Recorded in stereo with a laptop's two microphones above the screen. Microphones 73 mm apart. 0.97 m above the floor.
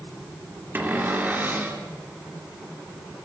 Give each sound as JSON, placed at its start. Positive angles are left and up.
{"t": 0.8, "sound": "a cupboard door", "side_deg": -25, "distance_m": 2.5}